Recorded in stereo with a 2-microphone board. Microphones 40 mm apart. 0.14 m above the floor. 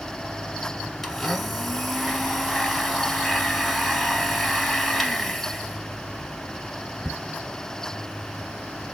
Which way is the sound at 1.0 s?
Centre (ahead or behind).